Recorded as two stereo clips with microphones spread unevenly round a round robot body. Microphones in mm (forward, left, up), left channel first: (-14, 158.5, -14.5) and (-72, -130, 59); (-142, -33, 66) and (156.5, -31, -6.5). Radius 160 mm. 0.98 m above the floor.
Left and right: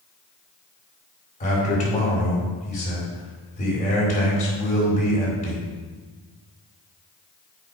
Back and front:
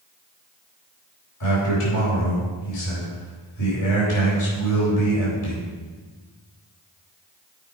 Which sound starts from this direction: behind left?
A man speaking, at 1.4 s.